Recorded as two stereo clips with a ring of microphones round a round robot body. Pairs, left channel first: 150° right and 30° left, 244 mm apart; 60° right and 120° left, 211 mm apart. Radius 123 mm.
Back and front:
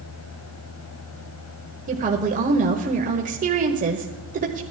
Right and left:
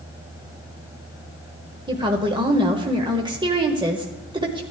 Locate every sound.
1.9 s a woman speaking: 65° left, 1.2 m